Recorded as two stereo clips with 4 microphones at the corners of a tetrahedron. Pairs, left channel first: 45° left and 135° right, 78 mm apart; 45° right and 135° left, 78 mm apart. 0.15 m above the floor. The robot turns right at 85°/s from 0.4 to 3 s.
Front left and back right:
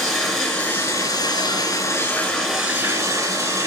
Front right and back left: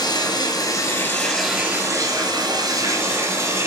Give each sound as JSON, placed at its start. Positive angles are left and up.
{"t": 0.0, "sound": "running water", "azimuth_deg": -45, "distance_m": 1.0}